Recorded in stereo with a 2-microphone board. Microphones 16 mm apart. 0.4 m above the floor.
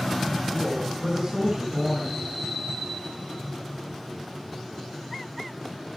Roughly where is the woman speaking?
Right.